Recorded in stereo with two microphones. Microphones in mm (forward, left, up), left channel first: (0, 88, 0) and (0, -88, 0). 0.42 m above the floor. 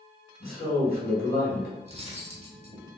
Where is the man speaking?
50° left (ahead or behind), 2 m.